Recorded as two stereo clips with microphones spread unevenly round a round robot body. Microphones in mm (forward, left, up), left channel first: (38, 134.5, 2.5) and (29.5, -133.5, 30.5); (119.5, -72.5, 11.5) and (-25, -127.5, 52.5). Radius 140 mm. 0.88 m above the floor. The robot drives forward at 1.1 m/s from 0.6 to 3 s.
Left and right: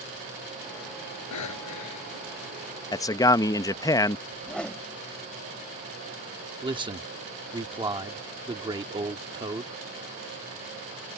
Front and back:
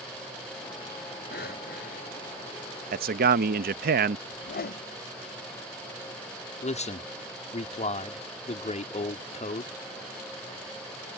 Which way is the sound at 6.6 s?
15° right.